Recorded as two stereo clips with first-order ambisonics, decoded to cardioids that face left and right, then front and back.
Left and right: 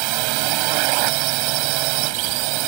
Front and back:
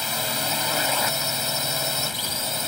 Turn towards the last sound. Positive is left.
turn(degrees=-80)